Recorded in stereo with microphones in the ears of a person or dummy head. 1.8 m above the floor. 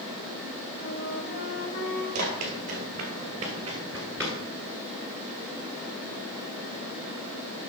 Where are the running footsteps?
45° right (ahead or behind), 3 m; by 4.4 s 15° left (ahead or behind), 1.9 m.